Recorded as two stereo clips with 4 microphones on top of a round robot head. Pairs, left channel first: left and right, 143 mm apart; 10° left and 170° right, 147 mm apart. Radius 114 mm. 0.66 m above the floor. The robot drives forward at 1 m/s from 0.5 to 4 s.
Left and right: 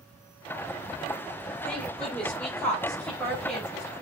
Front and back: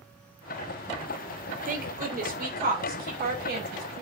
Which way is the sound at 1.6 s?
175° left.